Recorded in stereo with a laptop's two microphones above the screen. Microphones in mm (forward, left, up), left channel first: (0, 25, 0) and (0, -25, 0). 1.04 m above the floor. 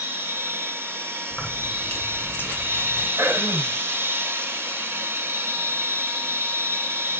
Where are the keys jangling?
40° left (ahead or behind), 2 m.